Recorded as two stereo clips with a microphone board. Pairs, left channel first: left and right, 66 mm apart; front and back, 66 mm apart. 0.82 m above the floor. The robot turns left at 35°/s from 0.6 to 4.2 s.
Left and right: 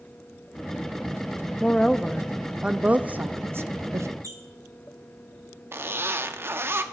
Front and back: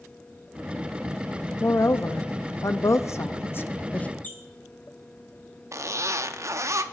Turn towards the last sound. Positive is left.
turn(degrees=-140)